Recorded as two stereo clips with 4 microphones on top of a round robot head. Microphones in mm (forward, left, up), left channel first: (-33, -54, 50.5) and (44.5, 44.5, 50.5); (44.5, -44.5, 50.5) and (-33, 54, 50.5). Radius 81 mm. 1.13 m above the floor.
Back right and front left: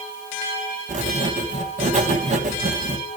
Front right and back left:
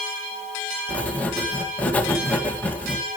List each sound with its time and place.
0.9 s writing: 25° left, 1.6 m